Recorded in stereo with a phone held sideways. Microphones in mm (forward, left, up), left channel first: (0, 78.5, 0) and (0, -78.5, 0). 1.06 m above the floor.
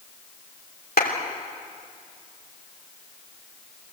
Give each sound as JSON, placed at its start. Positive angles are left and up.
{"t": 1.0, "sound": "a clap", "side_deg": 80, "distance_m": 3.0}